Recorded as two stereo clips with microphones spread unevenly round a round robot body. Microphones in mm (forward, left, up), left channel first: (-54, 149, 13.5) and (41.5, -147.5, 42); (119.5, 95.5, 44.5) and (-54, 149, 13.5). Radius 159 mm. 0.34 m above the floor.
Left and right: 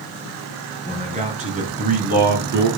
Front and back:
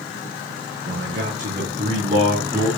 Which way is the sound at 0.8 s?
145° right.